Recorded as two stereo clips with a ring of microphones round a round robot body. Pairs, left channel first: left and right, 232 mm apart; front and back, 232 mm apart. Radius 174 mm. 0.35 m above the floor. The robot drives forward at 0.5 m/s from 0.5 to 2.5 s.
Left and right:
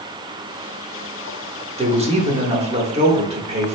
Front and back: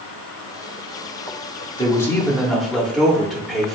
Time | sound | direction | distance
1.8 | a man speaking | 55° right | 1.0 m